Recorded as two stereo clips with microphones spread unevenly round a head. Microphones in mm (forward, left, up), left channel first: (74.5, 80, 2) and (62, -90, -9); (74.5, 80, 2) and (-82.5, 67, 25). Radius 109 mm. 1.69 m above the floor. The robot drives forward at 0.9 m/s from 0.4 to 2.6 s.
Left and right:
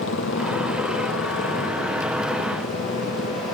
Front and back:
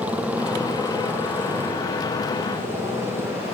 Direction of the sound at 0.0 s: 105° left.